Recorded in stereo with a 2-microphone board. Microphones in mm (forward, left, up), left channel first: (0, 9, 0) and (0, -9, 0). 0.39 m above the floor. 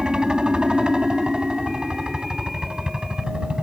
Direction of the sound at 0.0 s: 55° right (ahead or behind).